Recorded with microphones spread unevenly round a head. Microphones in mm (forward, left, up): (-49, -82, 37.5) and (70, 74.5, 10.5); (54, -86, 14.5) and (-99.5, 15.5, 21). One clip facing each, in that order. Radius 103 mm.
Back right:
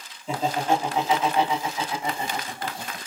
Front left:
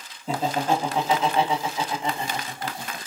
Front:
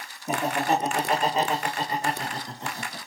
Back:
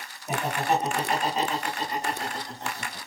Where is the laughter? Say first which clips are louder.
Even, front 1 dB; straight ahead, 1.8 m; by 3.0 s 15° right, 3 m.